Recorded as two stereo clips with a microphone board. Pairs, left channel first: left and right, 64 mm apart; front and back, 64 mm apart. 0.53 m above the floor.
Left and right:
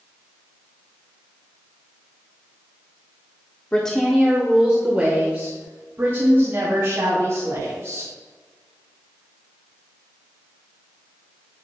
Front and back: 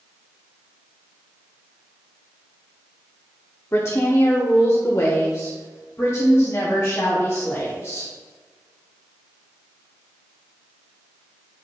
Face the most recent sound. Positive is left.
turn(degrees=-45)